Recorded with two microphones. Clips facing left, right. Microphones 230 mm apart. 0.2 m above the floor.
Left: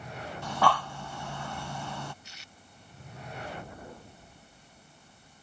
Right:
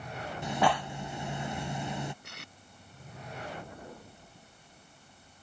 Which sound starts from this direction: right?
Tape being pulled, at 2.2 s.